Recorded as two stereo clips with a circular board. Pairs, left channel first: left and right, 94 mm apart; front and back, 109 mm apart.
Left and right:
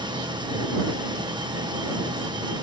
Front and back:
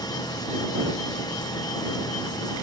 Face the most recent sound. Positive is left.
turn(degrees=-50)